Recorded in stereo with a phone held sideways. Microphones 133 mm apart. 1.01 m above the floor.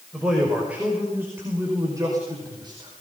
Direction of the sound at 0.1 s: 5° right (ahead or behind).